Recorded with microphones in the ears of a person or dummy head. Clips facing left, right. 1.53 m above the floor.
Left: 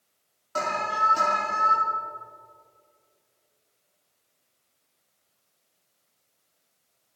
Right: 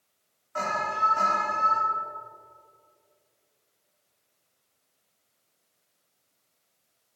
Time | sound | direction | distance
0.6 | an alarm | 55° left (ahead or behind) | 3 m